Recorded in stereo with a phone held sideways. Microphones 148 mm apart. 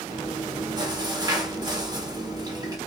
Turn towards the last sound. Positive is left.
turn(degrees=-25)  # may be behind; listen again after turning